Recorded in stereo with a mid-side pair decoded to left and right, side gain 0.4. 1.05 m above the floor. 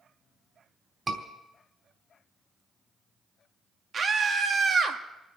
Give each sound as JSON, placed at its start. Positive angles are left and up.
{"t": 1.1, "sound": "a scream", "azimuth_deg": -35, "distance_m": 3.5}
{"t": 3.9, "sound": "a scream", "azimuth_deg": -50, "distance_m": 2.0}